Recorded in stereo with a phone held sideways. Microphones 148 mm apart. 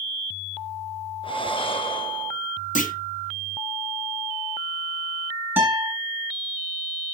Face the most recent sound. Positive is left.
turn(degrees=-15)  # may be behind; listen again after turning